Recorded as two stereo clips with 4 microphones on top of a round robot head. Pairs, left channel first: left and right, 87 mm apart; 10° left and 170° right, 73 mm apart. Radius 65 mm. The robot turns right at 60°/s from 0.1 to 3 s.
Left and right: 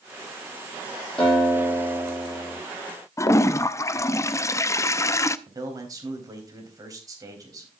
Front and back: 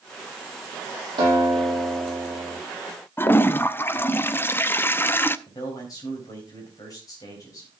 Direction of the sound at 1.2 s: 175° left.